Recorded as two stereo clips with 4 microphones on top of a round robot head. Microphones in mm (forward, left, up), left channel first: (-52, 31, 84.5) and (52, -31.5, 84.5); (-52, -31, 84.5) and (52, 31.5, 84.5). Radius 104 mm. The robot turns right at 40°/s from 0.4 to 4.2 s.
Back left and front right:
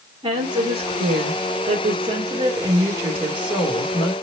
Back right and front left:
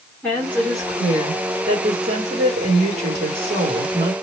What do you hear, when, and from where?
0.2 s a woman speaking: 75° right, 2 m; by 4.1 s 75° left, 2 m